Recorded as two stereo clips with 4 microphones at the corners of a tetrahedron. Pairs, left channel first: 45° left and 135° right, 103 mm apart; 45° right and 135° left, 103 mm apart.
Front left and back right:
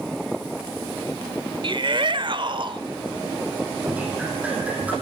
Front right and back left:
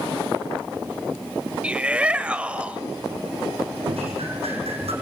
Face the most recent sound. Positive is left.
turn(degrees=150)